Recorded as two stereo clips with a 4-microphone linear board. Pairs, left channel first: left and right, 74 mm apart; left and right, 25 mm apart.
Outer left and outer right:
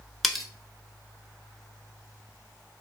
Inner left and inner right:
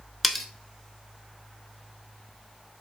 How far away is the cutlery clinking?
About 0.7 m.